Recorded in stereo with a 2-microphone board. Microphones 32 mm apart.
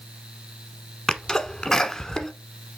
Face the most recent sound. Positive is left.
turn(degrees=20)  # may be behind; listen again after turning